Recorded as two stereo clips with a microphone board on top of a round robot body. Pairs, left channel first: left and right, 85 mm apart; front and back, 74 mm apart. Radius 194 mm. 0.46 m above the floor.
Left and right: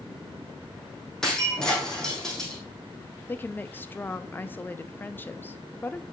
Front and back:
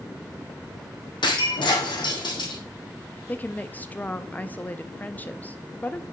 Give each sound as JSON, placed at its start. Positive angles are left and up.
{"t": 1.2, "sound": "breaking glass", "azimuth_deg": 5, "distance_m": 1.8}
{"t": 3.3, "sound": "a woman speaking", "azimuth_deg": 45, "distance_m": 0.9}